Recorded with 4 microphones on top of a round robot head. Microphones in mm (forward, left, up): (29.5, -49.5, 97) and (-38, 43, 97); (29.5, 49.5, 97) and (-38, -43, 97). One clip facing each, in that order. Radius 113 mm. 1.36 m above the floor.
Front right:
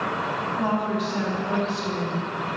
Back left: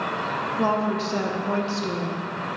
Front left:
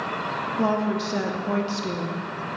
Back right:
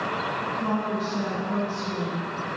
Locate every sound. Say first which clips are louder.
0.6 s a woman speaking: back left 3 dB, front left 5 dB; 65° left, 0.8 m